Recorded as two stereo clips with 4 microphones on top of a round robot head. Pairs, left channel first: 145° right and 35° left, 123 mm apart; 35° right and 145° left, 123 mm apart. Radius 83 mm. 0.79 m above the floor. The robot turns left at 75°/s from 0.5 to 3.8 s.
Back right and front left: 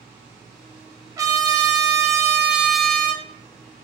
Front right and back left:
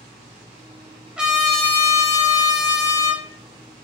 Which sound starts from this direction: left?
A trumpet, at 1.2 s.